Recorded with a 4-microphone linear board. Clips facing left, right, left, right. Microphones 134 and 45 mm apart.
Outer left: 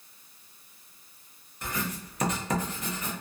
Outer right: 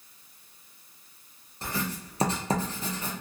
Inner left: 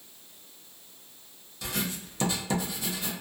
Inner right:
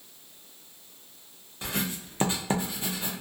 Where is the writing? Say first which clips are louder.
Outer right 1 dB, inner right 1 dB; 30° right (ahead or behind), 0.6 m.